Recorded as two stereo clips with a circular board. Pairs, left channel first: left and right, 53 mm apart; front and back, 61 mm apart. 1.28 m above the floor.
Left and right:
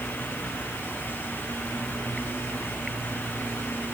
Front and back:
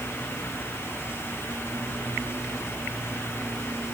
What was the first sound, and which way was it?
Only background noise.